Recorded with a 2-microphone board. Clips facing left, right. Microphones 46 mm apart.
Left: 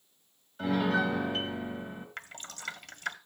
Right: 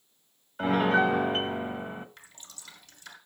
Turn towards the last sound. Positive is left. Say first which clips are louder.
# left 9 dB
turn(degrees=55)  # may be behind; listen again after turning